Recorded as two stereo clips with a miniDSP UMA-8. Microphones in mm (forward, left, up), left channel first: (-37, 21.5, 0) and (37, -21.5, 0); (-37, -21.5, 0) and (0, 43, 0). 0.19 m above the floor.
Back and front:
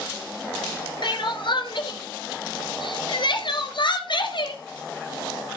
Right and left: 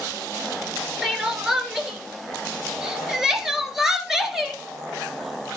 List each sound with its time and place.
1.0 s crying: 145° left, 4 m